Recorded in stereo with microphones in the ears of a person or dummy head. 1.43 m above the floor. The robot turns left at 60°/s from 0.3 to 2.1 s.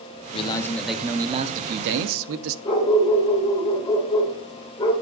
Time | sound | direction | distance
0.3 | a man speaking | 35° left | 0.6 m
2.6 | a dog barking | 25° left (ahead or behind) | 1.4 m